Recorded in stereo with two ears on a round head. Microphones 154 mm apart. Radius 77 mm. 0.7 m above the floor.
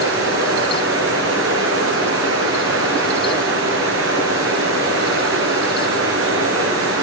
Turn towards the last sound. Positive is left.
turn(degrees=-80)